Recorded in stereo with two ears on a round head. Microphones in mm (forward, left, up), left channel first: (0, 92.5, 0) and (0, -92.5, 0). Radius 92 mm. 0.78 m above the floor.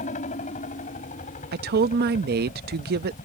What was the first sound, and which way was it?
A helicopter, 35° left (ahead or behind).